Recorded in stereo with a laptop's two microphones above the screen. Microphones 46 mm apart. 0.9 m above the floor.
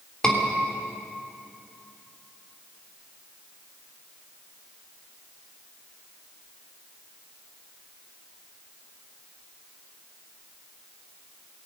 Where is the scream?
15° left (ahead or behind), 3 m.